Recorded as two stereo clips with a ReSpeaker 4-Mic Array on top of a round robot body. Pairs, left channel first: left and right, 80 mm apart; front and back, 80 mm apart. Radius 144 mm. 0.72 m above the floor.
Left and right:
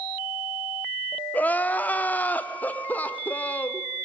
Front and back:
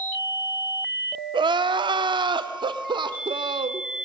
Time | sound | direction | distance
1.3 | crying | 160° left | 1.3 m